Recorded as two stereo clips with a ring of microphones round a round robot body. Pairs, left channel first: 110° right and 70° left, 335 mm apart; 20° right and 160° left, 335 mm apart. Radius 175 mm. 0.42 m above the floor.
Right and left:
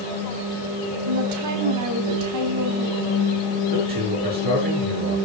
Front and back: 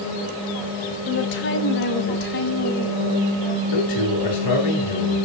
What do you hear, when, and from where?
1.1 s a woman speaking: 30° left, 3.5 m; by 3.3 s 40° left, 5 m
3.7 s a man speaking: 5° left, 7.5 m